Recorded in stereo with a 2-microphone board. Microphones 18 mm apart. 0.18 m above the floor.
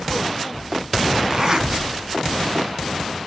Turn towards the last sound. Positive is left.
turn(degrees=-35)  # may be behind; listen again after turning